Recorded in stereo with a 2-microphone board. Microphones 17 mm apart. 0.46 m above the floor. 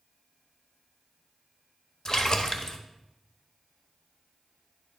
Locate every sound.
2.0 s a splash: 45° left (ahead or behind), 0.9 m